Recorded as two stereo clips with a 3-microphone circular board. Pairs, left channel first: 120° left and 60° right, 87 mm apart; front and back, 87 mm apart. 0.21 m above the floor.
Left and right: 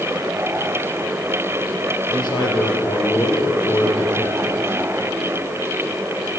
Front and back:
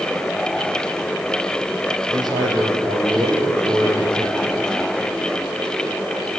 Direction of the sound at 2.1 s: 145° left.